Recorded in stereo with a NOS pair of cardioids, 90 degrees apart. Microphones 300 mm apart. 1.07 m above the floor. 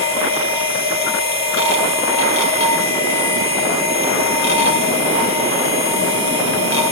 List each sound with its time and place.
0.0 s a machine running: 60° left, 3 m